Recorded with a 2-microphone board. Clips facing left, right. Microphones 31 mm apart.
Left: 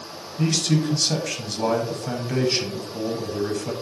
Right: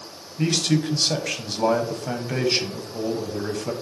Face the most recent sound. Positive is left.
turn(degrees=-15)  # may be behind; listen again after turning